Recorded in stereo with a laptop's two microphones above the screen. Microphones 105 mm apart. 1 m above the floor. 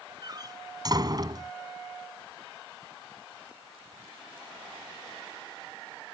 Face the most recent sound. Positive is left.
turn(degrees=-40)  # may be behind; listen again after turning